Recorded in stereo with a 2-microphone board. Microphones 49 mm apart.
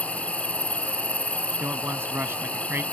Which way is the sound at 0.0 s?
25° left (ahead or behind).